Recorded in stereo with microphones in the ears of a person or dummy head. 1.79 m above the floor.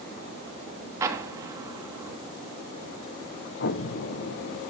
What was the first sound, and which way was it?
An explosion, 15° right (ahead or behind).